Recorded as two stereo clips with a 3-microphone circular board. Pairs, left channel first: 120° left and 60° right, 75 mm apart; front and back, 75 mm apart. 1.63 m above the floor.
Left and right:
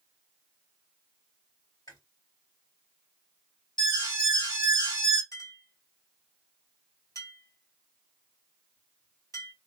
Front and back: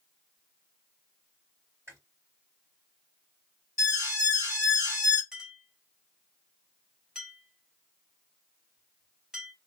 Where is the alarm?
130° left, 1.7 m.